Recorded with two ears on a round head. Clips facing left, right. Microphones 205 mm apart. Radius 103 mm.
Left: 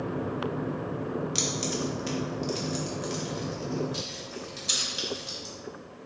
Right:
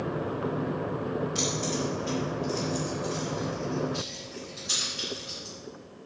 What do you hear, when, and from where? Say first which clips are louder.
1.4 s keys jangling: right 1 dB; 45° left (ahead or behind), 1.5 m; by 5.5 s 75° left (ahead or behind), 4 m